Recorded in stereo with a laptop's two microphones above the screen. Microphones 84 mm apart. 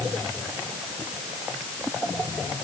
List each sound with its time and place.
Only background noise.